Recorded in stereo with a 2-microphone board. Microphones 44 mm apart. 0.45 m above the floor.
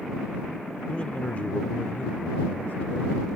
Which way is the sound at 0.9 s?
25° left (ahead or behind).